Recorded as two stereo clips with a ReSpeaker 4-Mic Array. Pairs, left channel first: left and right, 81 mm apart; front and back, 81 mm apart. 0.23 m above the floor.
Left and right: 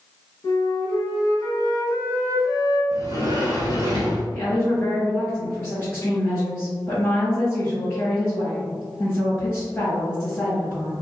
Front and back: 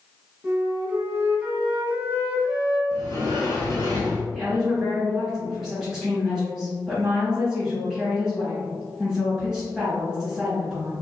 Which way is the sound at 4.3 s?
95° left.